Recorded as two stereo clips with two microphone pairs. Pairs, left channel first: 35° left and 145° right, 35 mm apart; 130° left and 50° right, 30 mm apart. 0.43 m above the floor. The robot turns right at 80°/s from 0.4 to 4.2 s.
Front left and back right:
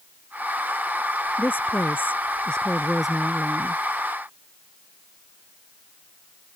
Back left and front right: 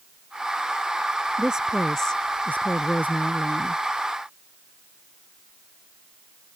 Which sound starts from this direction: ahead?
A woman speaking, at 1.4 s.